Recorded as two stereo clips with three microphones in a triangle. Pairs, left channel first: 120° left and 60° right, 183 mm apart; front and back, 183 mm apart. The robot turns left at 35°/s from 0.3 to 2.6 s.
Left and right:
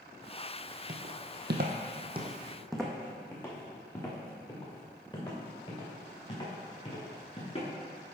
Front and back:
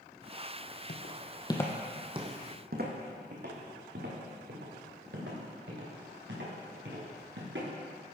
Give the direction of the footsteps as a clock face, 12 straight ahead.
1 o'clock.